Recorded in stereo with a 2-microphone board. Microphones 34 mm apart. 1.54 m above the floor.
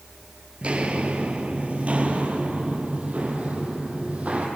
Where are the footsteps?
40° right (ahead or behind), 2.0 m; by 4.5 s 45° right (ahead or behind), 4 m.